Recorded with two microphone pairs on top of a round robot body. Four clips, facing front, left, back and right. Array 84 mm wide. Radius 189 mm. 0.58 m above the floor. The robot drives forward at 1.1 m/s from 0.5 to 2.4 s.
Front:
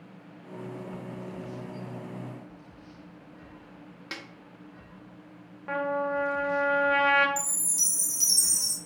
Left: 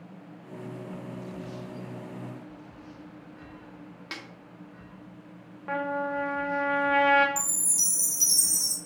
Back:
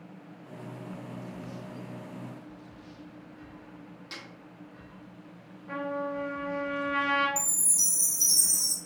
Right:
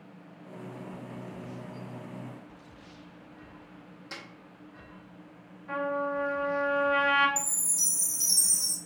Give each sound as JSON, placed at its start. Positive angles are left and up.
{"t": 4.1, "sound": "a snare drum", "azimuth_deg": 55, "distance_m": 1.6}
{"t": 5.7, "sound": "a trumpet", "azimuth_deg": 55, "distance_m": 1.0}
{"t": 7.4, "sound": "a chime", "azimuth_deg": 60, "distance_m": 1.9}